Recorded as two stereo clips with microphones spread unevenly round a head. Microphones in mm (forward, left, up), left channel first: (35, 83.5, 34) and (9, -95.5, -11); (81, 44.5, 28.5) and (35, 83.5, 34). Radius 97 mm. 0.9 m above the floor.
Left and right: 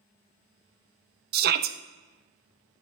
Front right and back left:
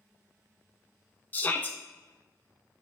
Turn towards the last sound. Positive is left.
turn(degrees=-105)